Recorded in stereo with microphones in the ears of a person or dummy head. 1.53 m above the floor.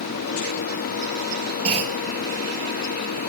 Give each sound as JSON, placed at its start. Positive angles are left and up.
{"t": 1.6, "sound": "a clunk", "side_deg": -35, "distance_m": 7.0}